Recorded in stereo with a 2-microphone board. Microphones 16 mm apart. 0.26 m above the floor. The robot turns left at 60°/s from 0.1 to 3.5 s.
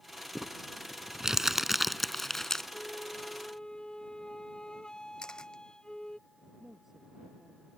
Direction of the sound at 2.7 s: 120° left.